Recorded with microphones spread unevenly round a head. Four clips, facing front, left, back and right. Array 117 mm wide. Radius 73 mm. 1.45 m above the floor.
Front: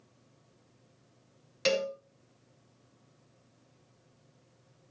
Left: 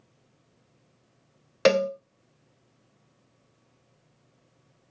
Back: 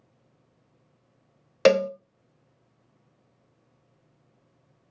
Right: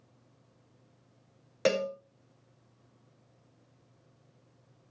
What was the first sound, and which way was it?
A cowbell, 165° left.